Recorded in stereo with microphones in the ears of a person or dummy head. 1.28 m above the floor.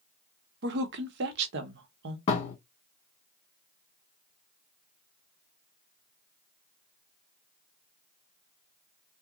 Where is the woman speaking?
70° right (ahead or behind), 0.8 m.